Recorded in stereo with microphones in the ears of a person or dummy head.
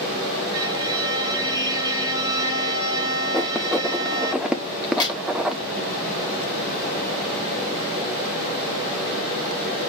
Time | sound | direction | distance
0.5 | a violin | 20° right (ahead or behind) | 2 m
3.3 | writing | 5° right (ahead or behind) | 0.8 m
4.8 | a crack | 25° left (ahead or behind) | 2.5 m